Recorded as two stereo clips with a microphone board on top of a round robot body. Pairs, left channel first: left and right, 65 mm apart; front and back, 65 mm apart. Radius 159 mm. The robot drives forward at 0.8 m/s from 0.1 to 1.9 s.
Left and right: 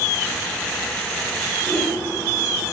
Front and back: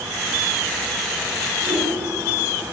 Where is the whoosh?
150° right, 3 m; by 1.9 s 155° right, 3.5 m.